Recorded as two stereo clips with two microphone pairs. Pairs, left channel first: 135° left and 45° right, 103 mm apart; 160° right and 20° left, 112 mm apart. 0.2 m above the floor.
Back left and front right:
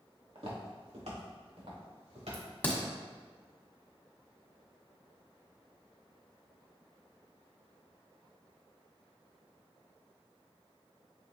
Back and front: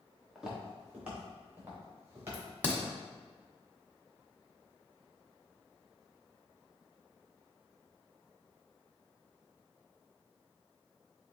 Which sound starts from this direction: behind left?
A crack, at 2.3 s.